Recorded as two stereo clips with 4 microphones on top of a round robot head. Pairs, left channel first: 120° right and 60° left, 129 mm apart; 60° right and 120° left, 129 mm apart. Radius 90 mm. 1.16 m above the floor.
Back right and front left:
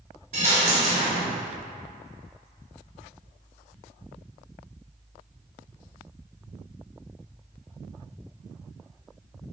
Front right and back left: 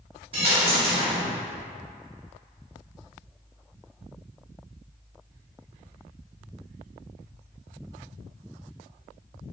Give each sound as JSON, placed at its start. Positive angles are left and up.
{"t": 0.3, "sound": "a dropped coin", "azimuth_deg": 85, "distance_m": 0.5}